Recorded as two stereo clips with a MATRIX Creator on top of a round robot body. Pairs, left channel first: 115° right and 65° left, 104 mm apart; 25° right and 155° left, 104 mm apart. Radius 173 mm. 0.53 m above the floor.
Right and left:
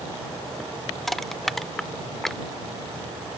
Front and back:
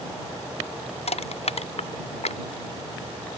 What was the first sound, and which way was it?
Crushing, 25° right.